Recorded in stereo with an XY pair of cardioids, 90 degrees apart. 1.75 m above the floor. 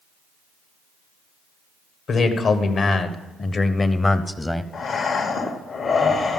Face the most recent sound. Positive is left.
turn(degrees=65)